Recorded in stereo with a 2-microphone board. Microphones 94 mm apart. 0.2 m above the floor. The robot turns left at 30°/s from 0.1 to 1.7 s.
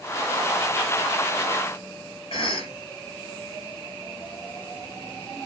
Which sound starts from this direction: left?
A cough, at 2.3 s.